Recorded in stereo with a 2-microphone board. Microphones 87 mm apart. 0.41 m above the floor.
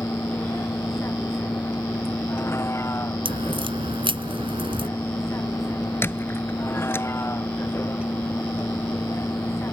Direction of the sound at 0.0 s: 30° left (ahead or behind).